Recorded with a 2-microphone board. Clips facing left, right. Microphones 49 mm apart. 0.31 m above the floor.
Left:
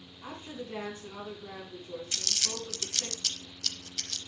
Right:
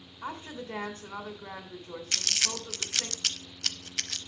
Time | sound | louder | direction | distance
0.2 | a woman speaking | right 3 dB | 65° right (ahead or behind) | 2.5 m
2.1 | crumpling | right 7 dB | 65° right (ahead or behind) | 0.5 m